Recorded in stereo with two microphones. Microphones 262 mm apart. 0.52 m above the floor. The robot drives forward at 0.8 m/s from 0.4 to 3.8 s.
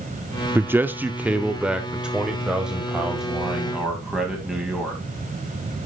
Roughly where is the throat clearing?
No throat clearing in this recording.